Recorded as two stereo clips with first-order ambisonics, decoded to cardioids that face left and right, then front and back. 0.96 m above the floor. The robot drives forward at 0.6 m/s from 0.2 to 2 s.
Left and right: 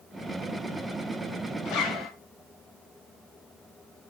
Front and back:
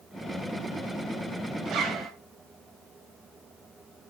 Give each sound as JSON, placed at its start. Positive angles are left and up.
{"t": 1.6, "sound": "a zipper", "azimuth_deg": 125, "distance_m": 2.5}